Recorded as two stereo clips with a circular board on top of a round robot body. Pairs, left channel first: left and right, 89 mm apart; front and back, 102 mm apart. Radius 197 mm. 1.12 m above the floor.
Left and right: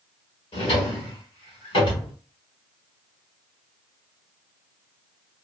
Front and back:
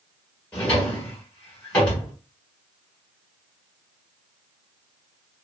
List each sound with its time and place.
0.5 s a drawer: 80° left, 1.5 m